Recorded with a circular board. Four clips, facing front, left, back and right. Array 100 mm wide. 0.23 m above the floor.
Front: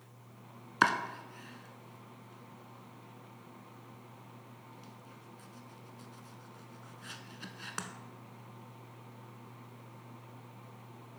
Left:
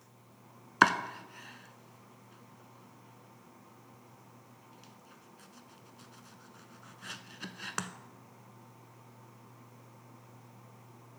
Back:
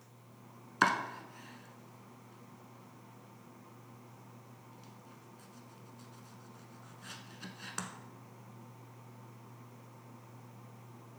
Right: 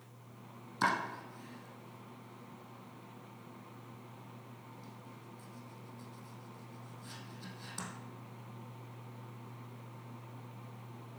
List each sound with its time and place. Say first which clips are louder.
0.8 s chopping: left 6 dB, front 1 dB; 80° left, 0.6 m